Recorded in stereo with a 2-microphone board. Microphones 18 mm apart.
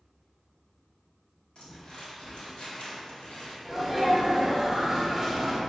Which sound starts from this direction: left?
Crumpling, at 1.6 s.